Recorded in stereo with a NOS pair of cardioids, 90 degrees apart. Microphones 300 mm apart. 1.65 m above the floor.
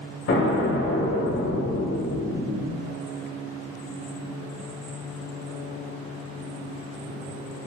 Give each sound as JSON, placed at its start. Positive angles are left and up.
{"t": 0.3, "sound": "an explosion", "azimuth_deg": 40, "distance_m": 1.0}